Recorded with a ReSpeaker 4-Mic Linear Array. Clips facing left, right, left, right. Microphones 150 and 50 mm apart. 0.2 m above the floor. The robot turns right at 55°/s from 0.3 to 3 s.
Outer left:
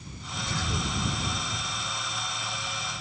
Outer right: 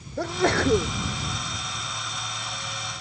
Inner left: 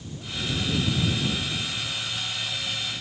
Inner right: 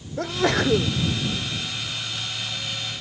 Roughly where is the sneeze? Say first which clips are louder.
Outer right 13 dB, inner right 10 dB; right.